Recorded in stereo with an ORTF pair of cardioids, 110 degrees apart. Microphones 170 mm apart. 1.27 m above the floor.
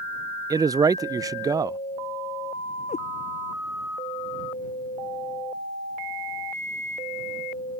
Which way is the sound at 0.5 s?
20° right.